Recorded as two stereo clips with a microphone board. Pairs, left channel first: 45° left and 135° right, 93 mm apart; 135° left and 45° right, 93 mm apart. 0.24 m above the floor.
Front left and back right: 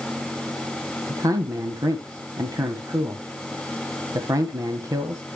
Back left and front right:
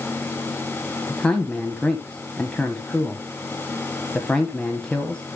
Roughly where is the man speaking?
Behind right.